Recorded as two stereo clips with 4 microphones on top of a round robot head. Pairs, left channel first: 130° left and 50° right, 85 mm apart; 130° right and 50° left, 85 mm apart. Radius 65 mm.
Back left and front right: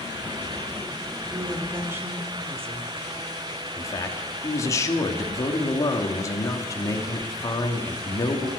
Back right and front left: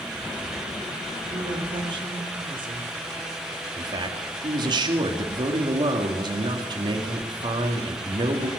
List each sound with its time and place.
1.3 s a woman speaking: 15° left, 2.5 m
3.8 s a man speaking: 80° left, 2.5 m